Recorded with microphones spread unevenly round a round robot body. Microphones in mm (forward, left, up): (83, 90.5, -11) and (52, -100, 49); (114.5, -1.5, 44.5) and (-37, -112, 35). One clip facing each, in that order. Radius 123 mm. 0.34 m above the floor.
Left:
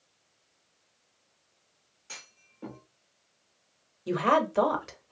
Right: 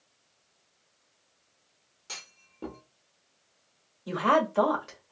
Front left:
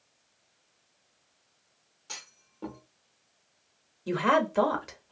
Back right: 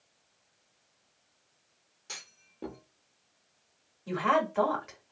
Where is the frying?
I don't hear frying.